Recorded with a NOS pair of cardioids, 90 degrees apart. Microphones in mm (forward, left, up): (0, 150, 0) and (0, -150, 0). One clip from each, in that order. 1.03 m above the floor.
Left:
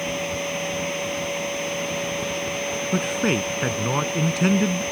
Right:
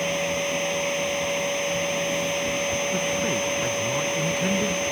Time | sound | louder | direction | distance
0.0 | a machine running | right 2 dB | 20° right | ?
2.9 | a man speaking | left 1 dB | 55° left | ?